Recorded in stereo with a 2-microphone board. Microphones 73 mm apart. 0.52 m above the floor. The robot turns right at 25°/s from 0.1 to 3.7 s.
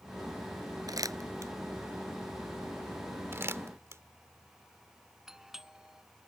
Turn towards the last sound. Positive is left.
turn(degrees=-5)  # may be behind; listen again after turning